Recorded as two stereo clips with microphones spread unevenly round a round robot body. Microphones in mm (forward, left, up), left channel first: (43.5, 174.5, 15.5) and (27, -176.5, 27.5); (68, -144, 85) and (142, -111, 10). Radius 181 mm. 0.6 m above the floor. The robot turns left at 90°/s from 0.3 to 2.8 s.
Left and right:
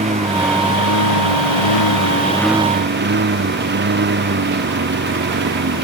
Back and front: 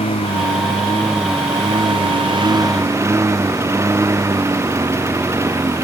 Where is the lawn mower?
165° right; by 5.8 s 30° right.